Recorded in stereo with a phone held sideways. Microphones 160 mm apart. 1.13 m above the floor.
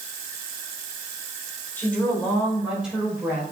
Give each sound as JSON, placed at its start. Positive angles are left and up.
{"t": 1.8, "sound": "a woman speaking", "side_deg": 10, "distance_m": 3.5}